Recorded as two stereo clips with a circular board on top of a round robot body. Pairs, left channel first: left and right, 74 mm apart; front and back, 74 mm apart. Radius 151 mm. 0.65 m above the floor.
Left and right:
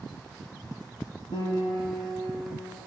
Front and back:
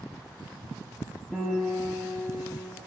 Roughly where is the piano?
Left.